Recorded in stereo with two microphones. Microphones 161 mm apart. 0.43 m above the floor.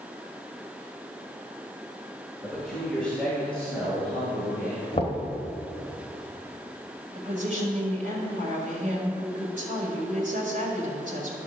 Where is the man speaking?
5° left (ahead or behind), 1.6 m; by 4.8 s 10° left (ahead or behind), 3.5 m.